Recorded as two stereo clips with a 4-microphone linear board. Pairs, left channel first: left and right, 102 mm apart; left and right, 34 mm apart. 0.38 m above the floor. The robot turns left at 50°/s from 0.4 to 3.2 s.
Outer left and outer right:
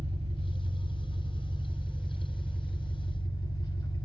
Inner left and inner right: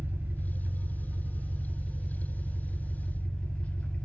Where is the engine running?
90° right, 1.3 m; by 4.0 s 130° left, 1.3 m.